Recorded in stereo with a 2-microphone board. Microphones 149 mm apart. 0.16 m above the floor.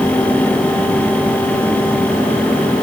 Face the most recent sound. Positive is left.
No sound to turn to.